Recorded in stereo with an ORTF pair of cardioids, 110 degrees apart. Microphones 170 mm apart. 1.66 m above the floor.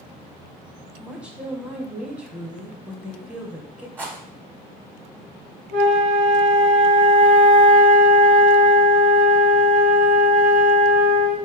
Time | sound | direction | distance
1.0 | a woman speaking | 5° right | 0.8 m
4.0 | a rattle | 10° right | 0.9 m
5.7 | a flute | 50° right | 0.8 m